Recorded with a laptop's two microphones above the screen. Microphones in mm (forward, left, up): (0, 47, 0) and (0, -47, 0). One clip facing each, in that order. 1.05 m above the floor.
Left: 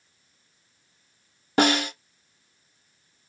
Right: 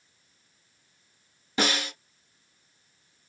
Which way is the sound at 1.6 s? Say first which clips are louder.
Left 7 dB; 55° left (ahead or behind).